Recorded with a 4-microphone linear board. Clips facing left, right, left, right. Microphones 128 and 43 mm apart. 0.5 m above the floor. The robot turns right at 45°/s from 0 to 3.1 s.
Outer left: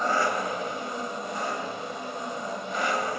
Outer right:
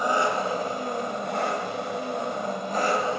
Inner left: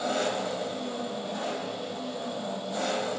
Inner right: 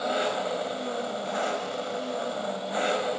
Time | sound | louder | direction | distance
0.0 | an engine running | outer right 2 dB, inner right 1 dB | 170° right | 1.1 m